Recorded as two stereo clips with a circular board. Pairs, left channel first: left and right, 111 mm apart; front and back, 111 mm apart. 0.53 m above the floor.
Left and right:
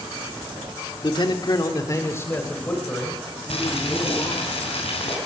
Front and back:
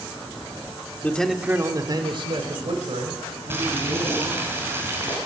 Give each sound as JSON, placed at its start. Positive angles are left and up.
{"t": 1.0, "sound": "a man speaking", "azimuth_deg": 70, "distance_m": 1.2}
{"t": 3.5, "sound": "boiling", "azimuth_deg": 110, "distance_m": 3.5}